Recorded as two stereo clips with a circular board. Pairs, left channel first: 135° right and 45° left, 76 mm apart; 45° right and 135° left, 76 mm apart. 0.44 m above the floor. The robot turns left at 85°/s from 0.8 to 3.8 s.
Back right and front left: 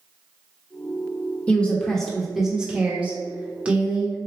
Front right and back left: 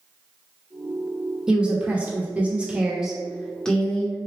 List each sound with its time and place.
1.5 s a woman speaking: 160° right, 0.9 m; by 4.2 s straight ahead, 0.9 m